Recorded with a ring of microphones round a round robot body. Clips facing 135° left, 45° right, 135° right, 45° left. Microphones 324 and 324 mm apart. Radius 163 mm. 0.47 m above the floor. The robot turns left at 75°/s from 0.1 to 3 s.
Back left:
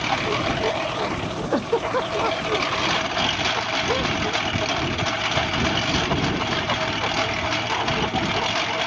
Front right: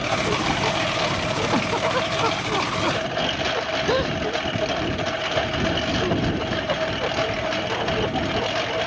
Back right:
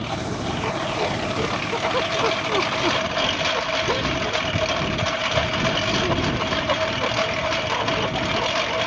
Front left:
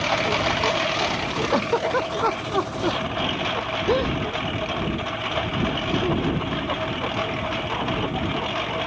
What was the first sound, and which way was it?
A lawn mower, 60° left.